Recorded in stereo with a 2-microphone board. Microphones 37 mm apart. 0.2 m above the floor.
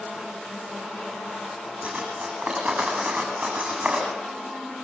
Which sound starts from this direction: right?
Cutlery clinking, at 1.8 s.